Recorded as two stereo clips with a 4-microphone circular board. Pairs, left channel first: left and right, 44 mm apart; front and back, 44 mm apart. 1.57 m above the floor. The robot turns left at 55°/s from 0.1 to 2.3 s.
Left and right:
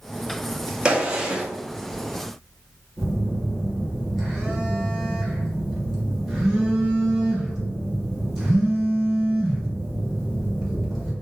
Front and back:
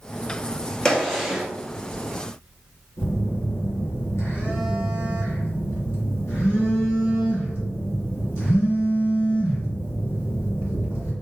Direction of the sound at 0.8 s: 70° right.